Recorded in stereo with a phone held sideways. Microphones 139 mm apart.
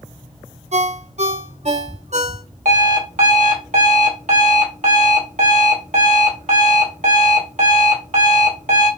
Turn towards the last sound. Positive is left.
turn(degrees=-60)  # may be behind; listen again after turning